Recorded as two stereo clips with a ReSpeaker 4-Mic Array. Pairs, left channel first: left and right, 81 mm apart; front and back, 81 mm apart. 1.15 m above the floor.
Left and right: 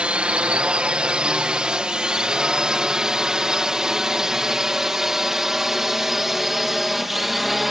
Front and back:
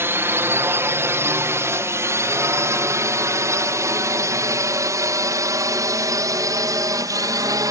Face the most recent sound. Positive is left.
turn(degrees=-175)